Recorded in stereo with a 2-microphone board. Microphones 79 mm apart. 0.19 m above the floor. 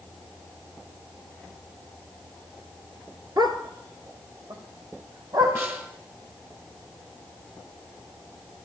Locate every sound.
3.4 s a dog barking: 60° right (ahead or behind), 1.2 m
5.5 s a snare drum: 30° right (ahead or behind), 1.3 m